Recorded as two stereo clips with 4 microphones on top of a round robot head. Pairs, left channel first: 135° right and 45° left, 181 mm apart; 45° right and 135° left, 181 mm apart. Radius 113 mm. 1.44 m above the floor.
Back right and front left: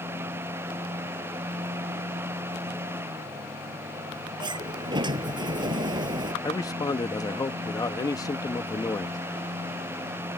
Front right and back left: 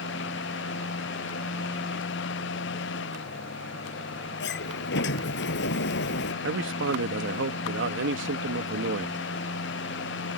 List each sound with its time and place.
4.4 s a sliding door: 20° right
6.4 s a man speaking: 155° left